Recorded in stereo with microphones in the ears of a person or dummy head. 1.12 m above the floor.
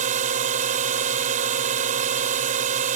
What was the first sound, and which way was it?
A drone, 40° right (ahead or behind).